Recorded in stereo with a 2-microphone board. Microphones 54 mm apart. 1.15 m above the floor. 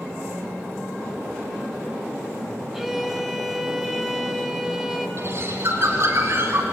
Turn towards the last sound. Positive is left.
turn(degrees=-45)  # may be behind; listen again after turning